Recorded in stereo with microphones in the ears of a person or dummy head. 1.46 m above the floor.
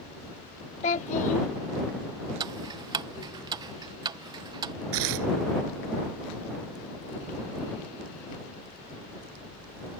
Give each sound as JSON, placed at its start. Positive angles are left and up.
{"t": 0.8, "sound": "a child speaking", "side_deg": 40}
{"t": 2.4, "sound": "ticking", "side_deg": -20}
{"t": 4.9, "sound": "tearing paper", "side_deg": -65}